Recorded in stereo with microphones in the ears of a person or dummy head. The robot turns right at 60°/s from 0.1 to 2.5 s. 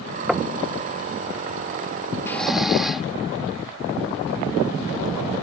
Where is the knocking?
Centre (ahead or behind); by 0.6 s 15° right (ahead or behind).